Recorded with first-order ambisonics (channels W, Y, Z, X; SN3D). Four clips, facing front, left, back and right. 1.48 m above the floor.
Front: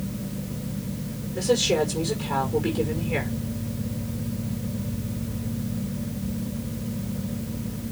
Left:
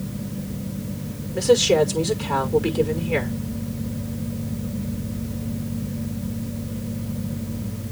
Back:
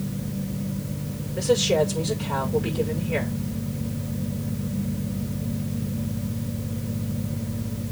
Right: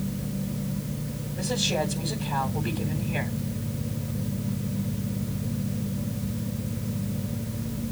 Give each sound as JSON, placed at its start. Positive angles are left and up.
{"t": 1.3, "sound": "a woman speaking", "azimuth_deg": 85, "distance_m": 5.5}